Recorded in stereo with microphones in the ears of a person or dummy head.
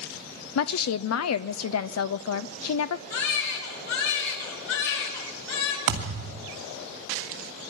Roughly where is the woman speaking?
Left.